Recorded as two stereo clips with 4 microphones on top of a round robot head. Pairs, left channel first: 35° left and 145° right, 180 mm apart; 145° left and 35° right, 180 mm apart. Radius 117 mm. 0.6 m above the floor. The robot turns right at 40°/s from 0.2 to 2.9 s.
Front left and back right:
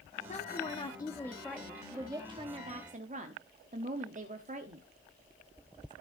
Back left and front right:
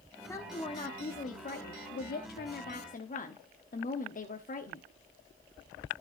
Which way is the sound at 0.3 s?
75° left.